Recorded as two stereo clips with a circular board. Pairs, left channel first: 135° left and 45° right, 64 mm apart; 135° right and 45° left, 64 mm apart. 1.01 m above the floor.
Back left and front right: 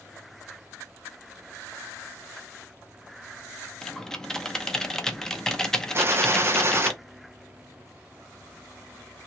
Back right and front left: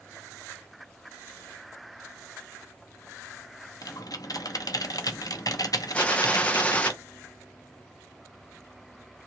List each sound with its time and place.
3.8 s typing on a keyboard: 145° right, 0.7 m
5.9 s a gunshot: 70° right, 0.8 m